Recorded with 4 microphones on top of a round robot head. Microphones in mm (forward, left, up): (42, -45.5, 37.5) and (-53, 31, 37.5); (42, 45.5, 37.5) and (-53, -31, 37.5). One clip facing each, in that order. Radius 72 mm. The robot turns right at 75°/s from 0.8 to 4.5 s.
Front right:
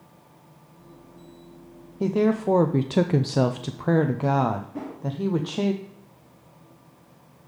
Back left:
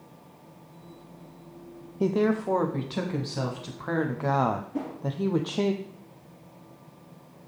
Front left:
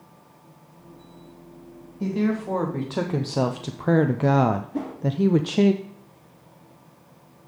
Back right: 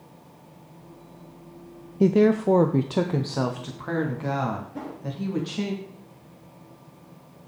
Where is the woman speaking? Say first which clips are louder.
Front right 2 dB, back right 6 dB; 135° right, 0.5 m; by 5.7 s 50° left, 0.5 m.